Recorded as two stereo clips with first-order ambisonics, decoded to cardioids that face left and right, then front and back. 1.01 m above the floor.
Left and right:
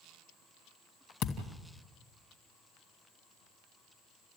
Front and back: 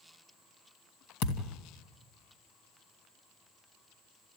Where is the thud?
40° left, 3 m.